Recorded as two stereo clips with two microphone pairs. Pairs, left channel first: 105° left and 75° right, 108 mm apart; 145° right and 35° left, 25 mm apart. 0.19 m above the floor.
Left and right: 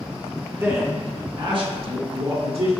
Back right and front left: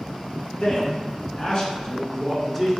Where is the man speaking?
135° right, 1.8 m; by 2.7 s 65° right, 2.5 m.